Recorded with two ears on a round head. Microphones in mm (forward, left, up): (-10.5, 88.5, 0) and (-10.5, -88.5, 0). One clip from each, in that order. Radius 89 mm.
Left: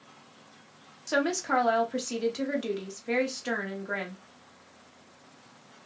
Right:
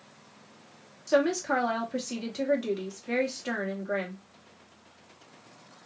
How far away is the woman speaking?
About 1.0 m.